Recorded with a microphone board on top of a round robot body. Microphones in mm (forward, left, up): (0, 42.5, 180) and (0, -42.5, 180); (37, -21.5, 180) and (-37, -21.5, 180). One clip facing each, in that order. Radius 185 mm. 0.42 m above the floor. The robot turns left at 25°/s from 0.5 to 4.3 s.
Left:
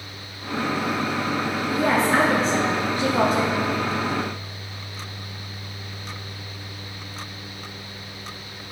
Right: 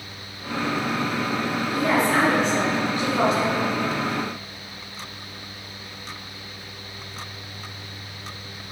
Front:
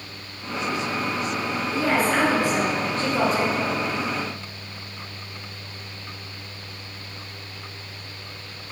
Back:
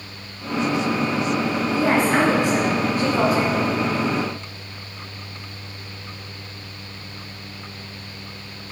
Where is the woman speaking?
135° left, 1.5 m; by 3.5 s 90° left, 1.5 m.